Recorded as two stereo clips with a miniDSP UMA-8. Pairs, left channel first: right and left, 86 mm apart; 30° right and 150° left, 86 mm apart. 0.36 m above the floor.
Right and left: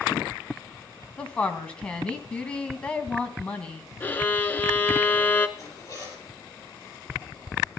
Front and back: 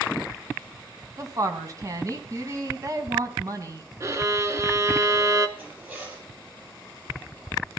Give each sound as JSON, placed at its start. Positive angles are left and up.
{"t": 1.2, "sound": "a woman speaking", "azimuth_deg": -165, "distance_m": 2.5}
{"t": 4.0, "sound": "a violin", "azimuth_deg": -155, "distance_m": 1.0}
{"t": 5.6, "sound": "a zipper", "azimuth_deg": -145, "distance_m": 7.5}